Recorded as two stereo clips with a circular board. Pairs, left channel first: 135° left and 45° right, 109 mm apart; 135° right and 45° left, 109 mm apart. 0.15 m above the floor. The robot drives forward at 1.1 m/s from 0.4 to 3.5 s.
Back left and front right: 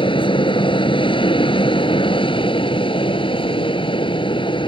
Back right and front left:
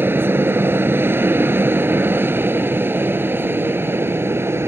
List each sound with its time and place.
0.0 s an aircraft: 110° left; by 4.7 s 105° left